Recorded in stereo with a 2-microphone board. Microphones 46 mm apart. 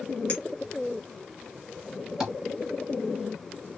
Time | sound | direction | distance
0.3 | a clink | 30° left (ahead or behind) | 1.1 m
2.2 | tapping | 10° right (ahead or behind) | 2 m